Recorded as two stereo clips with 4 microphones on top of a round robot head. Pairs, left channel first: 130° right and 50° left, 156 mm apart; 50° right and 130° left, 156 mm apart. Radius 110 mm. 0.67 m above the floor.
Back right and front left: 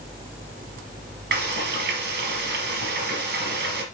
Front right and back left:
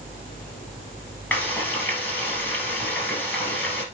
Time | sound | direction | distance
1.3 | frying | 25° left | 3.5 m